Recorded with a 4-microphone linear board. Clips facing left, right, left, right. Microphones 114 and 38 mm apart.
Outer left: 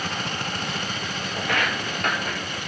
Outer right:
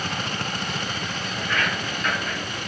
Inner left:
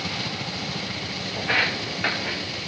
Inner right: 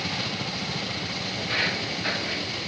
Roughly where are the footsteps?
Left.